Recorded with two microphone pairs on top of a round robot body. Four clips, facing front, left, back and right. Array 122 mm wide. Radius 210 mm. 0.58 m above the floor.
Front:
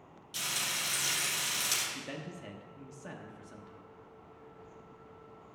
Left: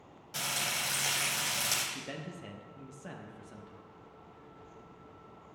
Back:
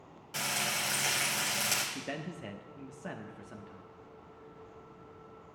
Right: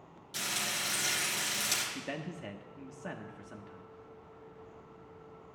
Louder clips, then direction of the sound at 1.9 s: Right 3 dB, back 3 dB; 140° right.